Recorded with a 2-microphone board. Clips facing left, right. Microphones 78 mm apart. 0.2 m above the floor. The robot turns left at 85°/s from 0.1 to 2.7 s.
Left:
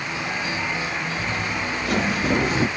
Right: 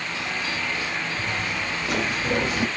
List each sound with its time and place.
1.2 s footsteps: 30° right (ahead or behind), 2.5 m; by 2.7 s 30° left (ahead or behind), 1.8 m